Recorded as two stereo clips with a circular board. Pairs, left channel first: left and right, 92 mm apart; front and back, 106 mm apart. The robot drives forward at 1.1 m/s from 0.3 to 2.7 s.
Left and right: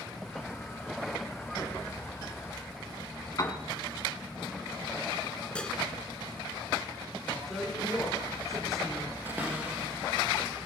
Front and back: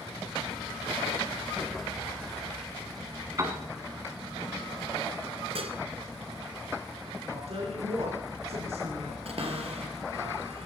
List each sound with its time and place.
3.4 s a piano: 130° left, 2.0 m
5.5 s dishes clattering: 165° left, 1.8 m
7.3 s a woman speaking: straight behind, 4 m
9.2 s a cupboard door: 160° right, 3 m